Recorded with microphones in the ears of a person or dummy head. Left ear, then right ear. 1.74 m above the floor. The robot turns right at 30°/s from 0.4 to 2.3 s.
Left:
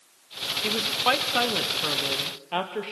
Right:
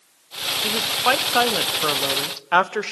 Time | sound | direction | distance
0.6 | a woman speaking | straight behind | 1.0 m